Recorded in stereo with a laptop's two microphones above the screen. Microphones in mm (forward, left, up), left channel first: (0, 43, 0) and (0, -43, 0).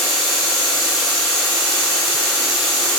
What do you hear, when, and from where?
0.0 s a machine running: 5° left (ahead or behind), 1.6 m